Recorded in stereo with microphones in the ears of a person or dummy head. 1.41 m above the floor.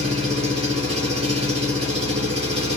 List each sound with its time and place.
0.0 s an engine running: 30° right (ahead or behind), 2 m